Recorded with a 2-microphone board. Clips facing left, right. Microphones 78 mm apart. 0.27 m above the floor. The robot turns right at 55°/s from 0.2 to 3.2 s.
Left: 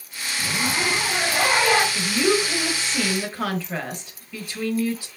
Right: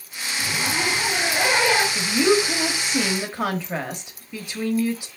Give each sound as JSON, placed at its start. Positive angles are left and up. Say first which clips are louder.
{"t": 0.4, "sound": "a zipper", "louder": "even", "azimuth_deg": 15, "distance_m": 2.5}
{"t": 1.9, "sound": "a woman speaking", "louder": "right 2 dB", "side_deg": 0, "distance_m": 1.0}